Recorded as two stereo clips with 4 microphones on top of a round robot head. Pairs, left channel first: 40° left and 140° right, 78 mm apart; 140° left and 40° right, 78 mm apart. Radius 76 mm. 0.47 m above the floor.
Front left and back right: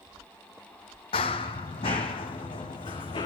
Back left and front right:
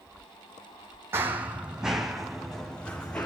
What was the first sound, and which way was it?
Running footsteps, 20° left.